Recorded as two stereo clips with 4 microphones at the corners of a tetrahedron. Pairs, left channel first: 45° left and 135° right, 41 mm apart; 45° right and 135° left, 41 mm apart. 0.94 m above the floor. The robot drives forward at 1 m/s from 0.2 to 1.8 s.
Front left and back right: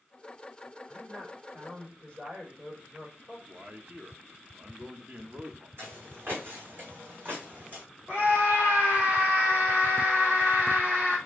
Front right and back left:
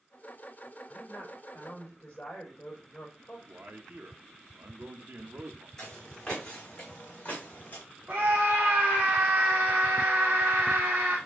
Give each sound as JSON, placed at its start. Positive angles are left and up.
{"t": 0.9, "sound": "a woman speaking", "azimuth_deg": -85, "distance_m": 3.5}
{"t": 3.5, "sound": "a man speaking", "azimuth_deg": 165, "distance_m": 0.8}
{"t": 5.8, "sound": "footsteps", "azimuth_deg": -120, "distance_m": 2.5}
{"t": 8.1, "sound": "a scream", "azimuth_deg": 165, "distance_m": 1.2}